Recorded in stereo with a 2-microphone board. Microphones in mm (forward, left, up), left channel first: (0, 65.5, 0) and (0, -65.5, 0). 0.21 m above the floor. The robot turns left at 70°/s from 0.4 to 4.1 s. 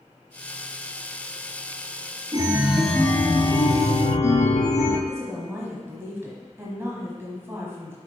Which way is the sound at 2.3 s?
140° right.